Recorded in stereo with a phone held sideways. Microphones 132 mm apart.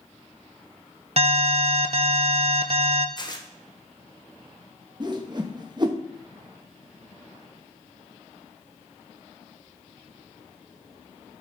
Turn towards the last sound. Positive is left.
turn(degrees=-35)  # may be behind; listen again after turning